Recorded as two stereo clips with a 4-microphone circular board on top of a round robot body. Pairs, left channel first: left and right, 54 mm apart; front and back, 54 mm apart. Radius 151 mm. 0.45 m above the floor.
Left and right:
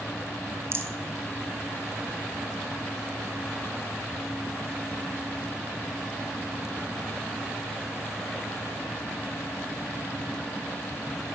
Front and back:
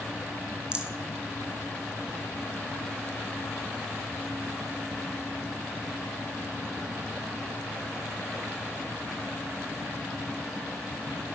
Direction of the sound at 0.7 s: 110° right.